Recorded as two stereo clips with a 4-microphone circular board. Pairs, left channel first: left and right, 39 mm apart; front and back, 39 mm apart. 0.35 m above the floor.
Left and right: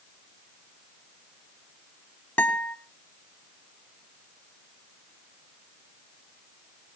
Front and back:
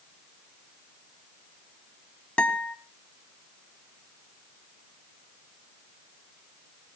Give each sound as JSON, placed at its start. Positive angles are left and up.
{"t": 2.4, "sound": "a guitar", "azimuth_deg": 60, "distance_m": 1.7}